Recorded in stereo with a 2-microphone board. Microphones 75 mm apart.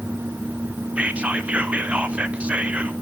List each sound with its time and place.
1.0 s whispering: 15° right (ahead or behind), 0.7 m